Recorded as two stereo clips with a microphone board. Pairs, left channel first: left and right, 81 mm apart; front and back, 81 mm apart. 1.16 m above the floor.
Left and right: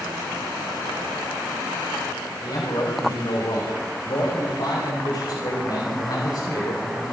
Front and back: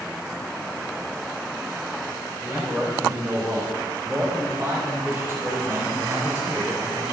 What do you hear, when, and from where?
2.4 s a man speaking: 105° left, 5.5 m